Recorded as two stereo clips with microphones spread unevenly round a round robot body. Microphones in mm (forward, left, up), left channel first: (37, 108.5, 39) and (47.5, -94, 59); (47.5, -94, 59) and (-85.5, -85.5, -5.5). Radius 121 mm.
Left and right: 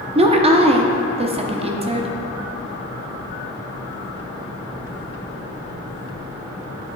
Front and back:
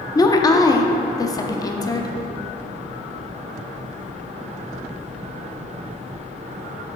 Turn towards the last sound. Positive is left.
turn(degrees=-100)